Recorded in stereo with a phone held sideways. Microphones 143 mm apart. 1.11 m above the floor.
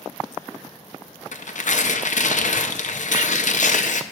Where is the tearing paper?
65° left (ahead or behind), 0.6 m.